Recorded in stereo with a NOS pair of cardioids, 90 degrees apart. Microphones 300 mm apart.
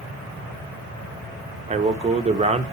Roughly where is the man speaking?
Ahead.